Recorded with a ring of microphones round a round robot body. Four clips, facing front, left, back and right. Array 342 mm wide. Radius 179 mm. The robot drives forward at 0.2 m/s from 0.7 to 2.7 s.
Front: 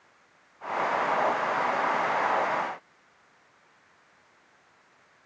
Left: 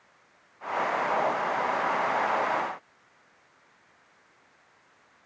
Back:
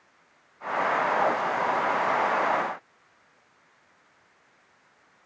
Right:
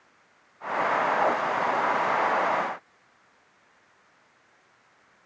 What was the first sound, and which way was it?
Only background noise.